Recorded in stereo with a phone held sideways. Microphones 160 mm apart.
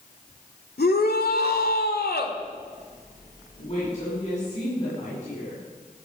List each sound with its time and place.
0.8 s a shout: 80° left, 2 m
3.6 s a woman speaking: 45° left (ahead or behind), 9.5 m